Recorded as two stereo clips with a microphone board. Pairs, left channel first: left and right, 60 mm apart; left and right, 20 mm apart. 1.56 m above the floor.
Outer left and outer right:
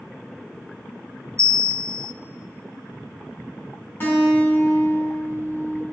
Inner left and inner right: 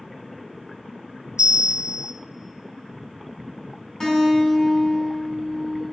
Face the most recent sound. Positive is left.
turn(degrees=40)  # may be behind; listen again after turning